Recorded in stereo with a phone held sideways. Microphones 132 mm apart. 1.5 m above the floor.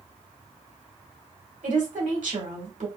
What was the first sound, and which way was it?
A woman speaking, 75° right (ahead or behind).